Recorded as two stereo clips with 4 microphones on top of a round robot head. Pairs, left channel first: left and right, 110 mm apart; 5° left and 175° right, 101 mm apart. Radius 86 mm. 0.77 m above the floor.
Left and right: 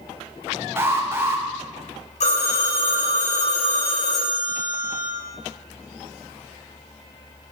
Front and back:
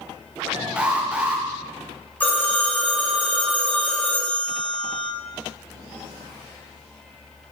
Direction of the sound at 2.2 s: 80° left.